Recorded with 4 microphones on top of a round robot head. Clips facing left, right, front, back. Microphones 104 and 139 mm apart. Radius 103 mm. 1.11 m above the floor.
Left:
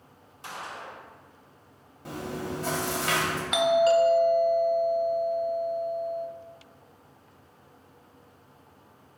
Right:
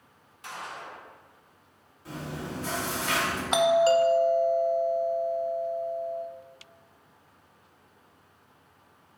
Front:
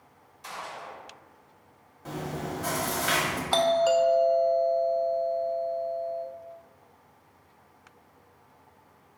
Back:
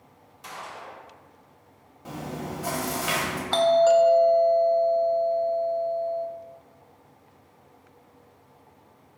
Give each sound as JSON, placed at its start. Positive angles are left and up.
{"t": 0.4, "sound": "a gunshot", "azimuth_deg": 150, "distance_m": 1.7}
{"t": 2.0, "sound": "chewing", "azimuth_deg": 105, "distance_m": 1.4}
{"t": 3.5, "sound": "a doorbell", "azimuth_deg": -70, "distance_m": 0.5}